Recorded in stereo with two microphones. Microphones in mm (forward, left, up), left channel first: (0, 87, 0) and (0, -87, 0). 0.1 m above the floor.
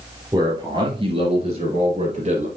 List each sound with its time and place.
0.3 s a man speaking: 20° right (ahead or behind), 3 m; by 2.5 s 35° right (ahead or behind), 2.5 m